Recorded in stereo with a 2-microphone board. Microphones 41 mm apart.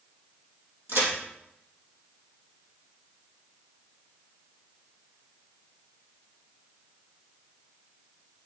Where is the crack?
70° right (ahead or behind), 3 m.